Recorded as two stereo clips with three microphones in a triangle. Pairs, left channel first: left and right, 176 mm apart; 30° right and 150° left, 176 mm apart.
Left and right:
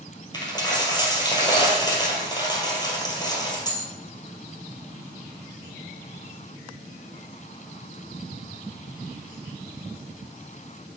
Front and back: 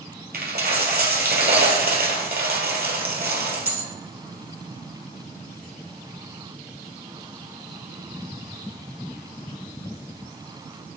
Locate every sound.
0.3 s a dropped coin: 155° left, 1.8 m